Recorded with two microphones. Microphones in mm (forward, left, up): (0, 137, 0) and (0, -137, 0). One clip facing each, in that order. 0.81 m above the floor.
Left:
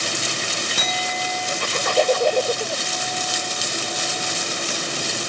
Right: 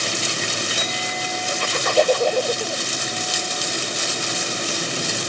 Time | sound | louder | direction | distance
0.8 | a clink | even | 75° left (ahead or behind) | 2.5 m